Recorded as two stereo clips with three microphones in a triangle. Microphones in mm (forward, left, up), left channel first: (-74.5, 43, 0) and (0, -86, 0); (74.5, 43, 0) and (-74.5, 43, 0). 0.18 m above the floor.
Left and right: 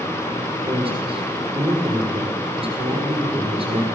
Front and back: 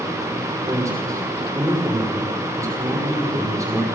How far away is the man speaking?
About 5.5 m.